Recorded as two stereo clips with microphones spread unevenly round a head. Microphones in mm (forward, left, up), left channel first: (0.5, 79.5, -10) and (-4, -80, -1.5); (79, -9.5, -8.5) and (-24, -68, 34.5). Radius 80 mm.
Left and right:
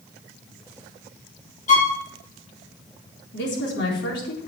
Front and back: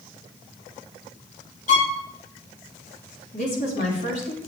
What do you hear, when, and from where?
1.7 s a violin: 45° left, 2.5 m
3.3 s a woman speaking: 65° left, 4 m